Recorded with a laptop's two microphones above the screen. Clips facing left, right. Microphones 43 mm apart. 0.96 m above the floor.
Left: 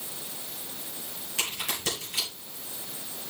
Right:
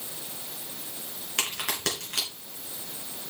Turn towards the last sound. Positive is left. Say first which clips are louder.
# right 2 dB
turn(degrees=-80)